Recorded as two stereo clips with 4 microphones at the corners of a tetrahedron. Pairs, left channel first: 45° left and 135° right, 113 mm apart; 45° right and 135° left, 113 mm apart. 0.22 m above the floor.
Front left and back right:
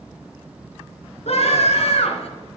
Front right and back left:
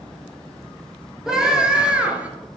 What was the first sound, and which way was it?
A scream, 50° left.